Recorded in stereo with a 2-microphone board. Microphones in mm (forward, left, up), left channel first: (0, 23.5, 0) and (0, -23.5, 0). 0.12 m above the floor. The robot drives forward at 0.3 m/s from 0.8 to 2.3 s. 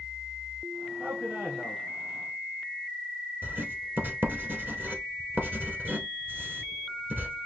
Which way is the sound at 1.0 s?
25° right (ahead or behind).